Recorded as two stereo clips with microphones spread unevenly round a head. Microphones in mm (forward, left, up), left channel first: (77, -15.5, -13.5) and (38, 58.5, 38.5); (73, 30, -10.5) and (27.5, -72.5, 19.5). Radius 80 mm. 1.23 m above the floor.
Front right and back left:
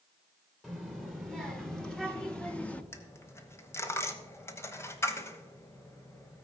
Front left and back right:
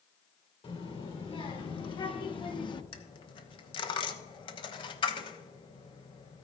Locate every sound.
0.6 s a child speaking: 25° left, 3 m; by 2.8 s 15° left, 1.3 m
2.9 s a dropped coin: 25° left, 1.3 m